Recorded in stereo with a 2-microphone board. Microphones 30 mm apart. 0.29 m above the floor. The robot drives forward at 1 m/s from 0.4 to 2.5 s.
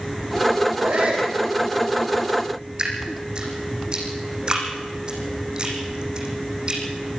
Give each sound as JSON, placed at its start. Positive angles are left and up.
{"t": 0.8, "sound": "a shout", "side_deg": -80, "distance_m": 8.0}
{"t": 2.8, "sound": "dripping", "side_deg": -30, "distance_m": 5.5}